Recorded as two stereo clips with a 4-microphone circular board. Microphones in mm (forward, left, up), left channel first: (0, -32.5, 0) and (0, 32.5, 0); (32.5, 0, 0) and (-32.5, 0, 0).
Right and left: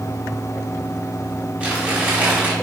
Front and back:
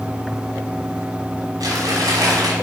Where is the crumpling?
155° left, 4.5 m.